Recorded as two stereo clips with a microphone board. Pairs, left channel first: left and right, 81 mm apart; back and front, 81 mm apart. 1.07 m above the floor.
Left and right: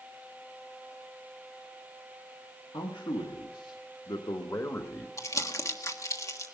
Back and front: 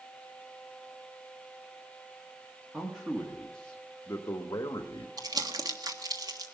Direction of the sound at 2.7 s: 75° left.